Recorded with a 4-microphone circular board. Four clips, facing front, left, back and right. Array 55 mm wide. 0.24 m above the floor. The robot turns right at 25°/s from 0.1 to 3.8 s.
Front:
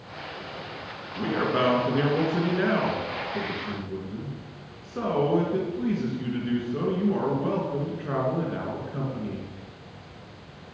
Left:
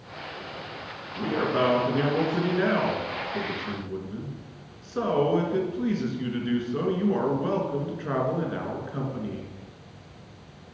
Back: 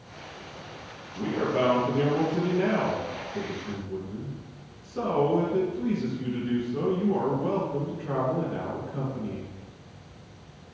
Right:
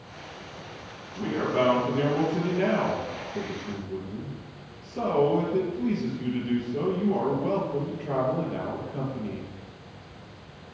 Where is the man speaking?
5° left, 2.5 m; by 9.5 s 75° left, 2.5 m.